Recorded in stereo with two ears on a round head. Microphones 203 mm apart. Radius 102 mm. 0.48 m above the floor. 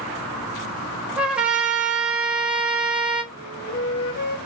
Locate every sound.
1.2 s a trumpet: 5° right (ahead or behind), 1.2 m
3.3 s a flute: 45° left (ahead or behind), 2.5 m